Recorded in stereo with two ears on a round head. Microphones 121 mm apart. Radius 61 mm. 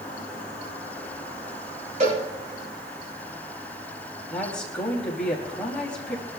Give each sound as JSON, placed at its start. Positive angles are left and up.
{"t": 2.0, "sound": "a cowbell", "side_deg": -55, "distance_m": 10.0}
{"t": 4.3, "sound": "a woman speaking", "side_deg": 5, "distance_m": 4.5}